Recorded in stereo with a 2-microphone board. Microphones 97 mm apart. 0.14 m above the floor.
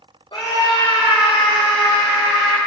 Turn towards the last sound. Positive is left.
turn(degrees=75)  # may be behind; listen again after turning